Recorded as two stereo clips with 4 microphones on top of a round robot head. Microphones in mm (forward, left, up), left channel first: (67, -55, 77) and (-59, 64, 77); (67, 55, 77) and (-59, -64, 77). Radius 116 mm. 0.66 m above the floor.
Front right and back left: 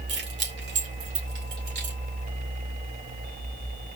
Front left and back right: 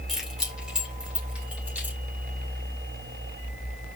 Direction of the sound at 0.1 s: 135° left.